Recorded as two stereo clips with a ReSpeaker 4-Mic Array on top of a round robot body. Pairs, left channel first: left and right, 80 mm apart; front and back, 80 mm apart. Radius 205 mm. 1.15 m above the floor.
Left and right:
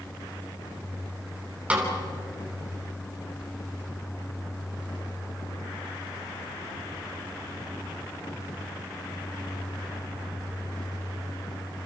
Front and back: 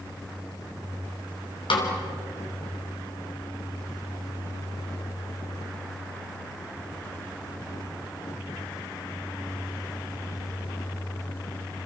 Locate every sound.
1.7 s a snare drum: 15° right, 3.5 m